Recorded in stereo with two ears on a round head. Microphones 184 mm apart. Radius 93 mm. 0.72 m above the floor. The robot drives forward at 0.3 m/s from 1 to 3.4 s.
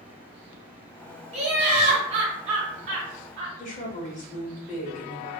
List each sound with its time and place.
1.3 s laughter: 30° right (ahead or behind), 1.2 m; by 3.5 s 35° right (ahead or behind), 1.0 m
3.6 s a woman speaking: 40° left (ahead or behind), 1.0 m